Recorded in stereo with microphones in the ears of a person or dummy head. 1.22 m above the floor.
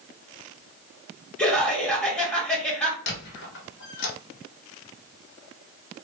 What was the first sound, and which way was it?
Laughter, 5° left (ahead or behind).